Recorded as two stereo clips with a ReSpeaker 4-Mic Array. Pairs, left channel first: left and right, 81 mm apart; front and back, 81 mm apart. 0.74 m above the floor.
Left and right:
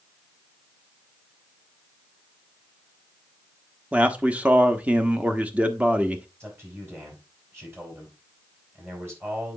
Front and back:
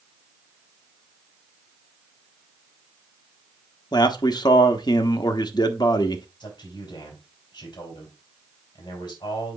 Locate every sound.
3.9 s a man speaking: 20° right, 1.0 m
6.4 s a man speaking: 30° right, 4.5 m